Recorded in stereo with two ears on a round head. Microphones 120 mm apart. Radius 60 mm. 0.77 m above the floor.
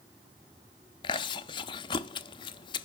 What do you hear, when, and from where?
1.0 s chewing: 35° left (ahead or behind), 0.5 m